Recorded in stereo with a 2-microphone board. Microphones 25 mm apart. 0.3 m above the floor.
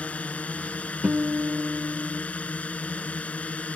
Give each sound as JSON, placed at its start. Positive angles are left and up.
{"t": 0.0, "sound": "a drone", "side_deg": 65}
{"t": 1.0, "sound": "a guitar", "side_deg": -65}